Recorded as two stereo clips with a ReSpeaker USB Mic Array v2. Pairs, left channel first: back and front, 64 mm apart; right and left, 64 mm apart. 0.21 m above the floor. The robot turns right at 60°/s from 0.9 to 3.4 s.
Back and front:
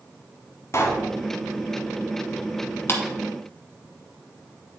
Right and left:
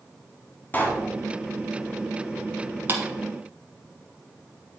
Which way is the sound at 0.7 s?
150° right.